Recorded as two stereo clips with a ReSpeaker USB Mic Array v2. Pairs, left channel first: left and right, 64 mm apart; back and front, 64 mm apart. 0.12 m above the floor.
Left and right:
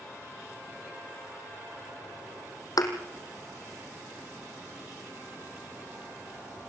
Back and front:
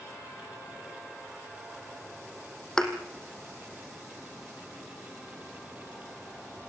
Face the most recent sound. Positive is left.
turn(degrees=100)